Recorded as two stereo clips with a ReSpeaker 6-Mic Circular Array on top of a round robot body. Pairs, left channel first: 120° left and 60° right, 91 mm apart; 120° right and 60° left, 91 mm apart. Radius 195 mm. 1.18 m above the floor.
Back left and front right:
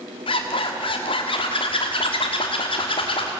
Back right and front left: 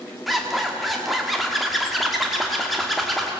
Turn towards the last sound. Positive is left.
turn(degrees=150)